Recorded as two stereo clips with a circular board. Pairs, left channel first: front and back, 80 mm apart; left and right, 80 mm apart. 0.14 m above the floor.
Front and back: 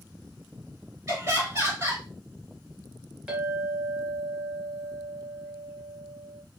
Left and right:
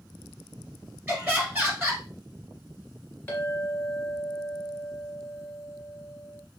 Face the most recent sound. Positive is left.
turn(degrees=115)